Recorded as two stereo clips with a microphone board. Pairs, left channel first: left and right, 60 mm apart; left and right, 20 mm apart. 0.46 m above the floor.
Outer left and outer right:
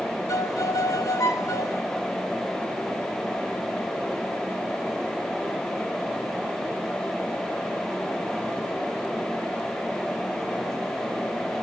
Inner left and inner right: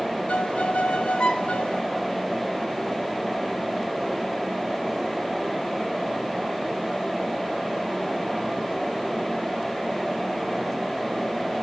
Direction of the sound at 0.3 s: 65° left (ahead or behind).